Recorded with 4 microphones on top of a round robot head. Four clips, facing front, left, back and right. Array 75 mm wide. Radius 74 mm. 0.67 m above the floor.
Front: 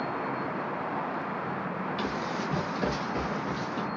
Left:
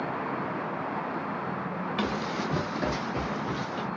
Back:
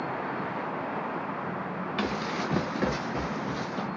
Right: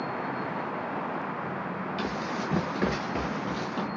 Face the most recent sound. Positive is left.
turn(degrees=-90)